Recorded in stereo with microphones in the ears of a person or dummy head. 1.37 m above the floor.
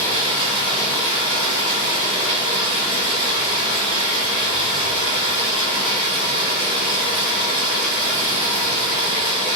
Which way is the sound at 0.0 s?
30° right (ahead or behind).